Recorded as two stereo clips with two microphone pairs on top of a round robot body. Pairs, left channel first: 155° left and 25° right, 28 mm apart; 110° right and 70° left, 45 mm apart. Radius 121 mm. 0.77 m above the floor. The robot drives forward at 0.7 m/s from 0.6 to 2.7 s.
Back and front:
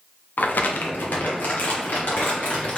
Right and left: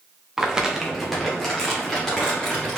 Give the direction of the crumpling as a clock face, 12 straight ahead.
7 o'clock.